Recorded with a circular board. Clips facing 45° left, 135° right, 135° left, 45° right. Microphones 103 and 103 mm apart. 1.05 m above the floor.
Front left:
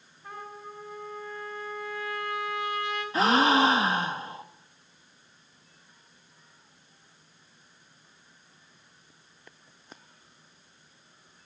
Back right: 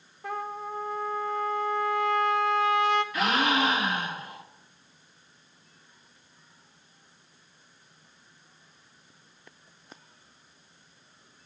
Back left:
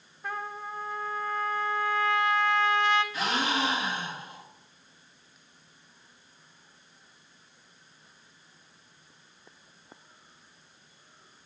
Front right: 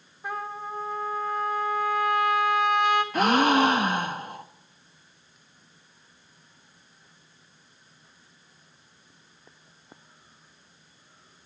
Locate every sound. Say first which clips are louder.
0.2 s a trumpet: back right 8 dB, front right 3 dB; 120° right, 1.1 m
3.1 s a gasp: front left 4 dB, front right 9 dB; 10° right, 0.7 m